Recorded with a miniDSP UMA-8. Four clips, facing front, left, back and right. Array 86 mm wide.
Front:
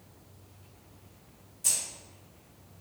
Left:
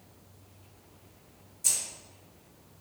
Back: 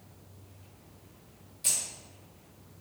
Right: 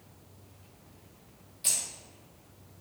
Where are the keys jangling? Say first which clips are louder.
Right 1 dB, even; 110° right, 0.6 m.